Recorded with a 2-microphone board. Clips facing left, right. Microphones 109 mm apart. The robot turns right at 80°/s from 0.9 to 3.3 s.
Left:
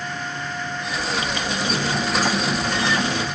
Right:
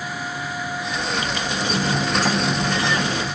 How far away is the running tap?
About 7.5 m.